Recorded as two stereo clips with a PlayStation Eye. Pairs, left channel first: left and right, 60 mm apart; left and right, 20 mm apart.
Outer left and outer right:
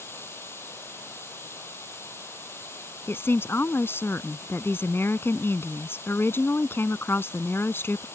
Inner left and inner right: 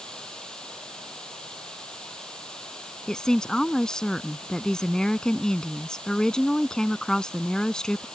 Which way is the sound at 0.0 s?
40° left (ahead or behind).